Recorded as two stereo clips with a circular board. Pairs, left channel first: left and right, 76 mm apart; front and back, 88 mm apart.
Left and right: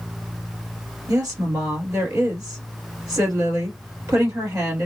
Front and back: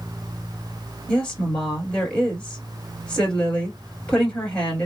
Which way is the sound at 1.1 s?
80° right.